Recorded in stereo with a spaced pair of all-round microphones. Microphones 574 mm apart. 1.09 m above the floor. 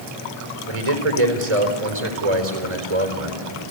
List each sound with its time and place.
0.7 s a man speaking: 75° right (ahead or behind), 4 m